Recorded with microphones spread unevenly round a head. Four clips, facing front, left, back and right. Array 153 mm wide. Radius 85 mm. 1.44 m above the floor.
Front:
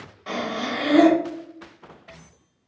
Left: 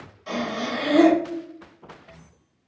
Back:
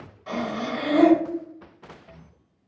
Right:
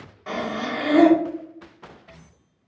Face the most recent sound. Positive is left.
turn(degrees=-35)